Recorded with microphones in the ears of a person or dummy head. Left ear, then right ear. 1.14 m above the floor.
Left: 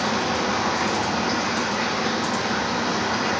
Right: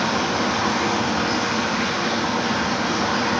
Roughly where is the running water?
Centre.